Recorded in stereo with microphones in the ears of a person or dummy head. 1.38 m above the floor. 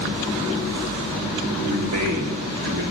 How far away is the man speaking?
About 3.5 m.